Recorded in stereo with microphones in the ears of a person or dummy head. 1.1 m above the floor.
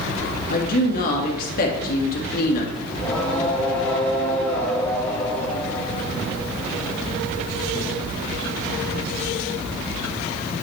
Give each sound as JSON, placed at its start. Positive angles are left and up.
{"t": 0.5, "sound": "a woman speaking", "side_deg": 50, "distance_m": 2.0}
{"t": 2.9, "sound": "singing", "side_deg": 10, "distance_m": 1.2}